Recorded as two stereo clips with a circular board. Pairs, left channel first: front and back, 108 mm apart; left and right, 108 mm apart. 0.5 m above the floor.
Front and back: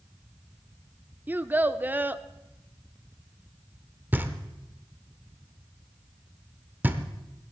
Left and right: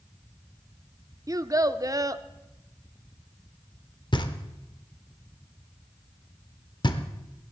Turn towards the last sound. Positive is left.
turn(degrees=115)